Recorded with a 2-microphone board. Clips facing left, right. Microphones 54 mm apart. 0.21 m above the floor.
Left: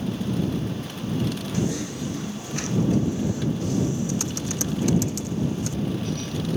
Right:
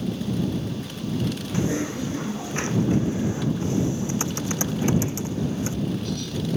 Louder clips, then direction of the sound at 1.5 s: Right 4 dB; 30° right (ahead or behind).